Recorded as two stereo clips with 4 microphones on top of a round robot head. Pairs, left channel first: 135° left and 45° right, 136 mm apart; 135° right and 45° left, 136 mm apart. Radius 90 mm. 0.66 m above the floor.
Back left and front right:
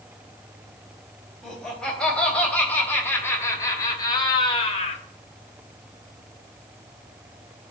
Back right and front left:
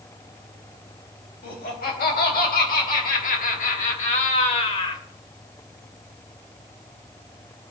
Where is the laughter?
140° right, 3.5 m; by 5.0 s 175° left, 1.7 m.